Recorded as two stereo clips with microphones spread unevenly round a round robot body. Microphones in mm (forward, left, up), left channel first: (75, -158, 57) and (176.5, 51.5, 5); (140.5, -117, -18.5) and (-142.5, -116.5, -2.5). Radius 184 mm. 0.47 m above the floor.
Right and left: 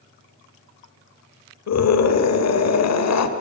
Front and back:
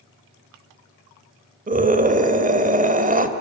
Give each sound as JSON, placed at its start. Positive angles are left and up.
{"t": 1.7, "sound": "a scream", "azimuth_deg": -120, "distance_m": 2.5}